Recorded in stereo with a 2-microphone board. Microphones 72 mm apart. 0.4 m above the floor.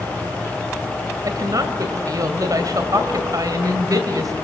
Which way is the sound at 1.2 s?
55° right (ahead or behind).